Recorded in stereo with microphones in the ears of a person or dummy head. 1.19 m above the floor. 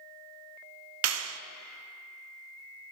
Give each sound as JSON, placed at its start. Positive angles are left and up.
{"t": 1.0, "sound": "a clap", "side_deg": -75, "distance_m": 0.5}